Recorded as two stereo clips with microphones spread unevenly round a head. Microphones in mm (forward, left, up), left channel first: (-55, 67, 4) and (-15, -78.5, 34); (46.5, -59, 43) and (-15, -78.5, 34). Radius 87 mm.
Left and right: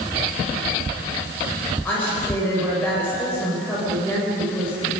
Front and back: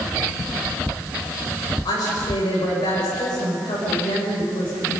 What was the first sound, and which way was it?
A woman speaking, 25° left.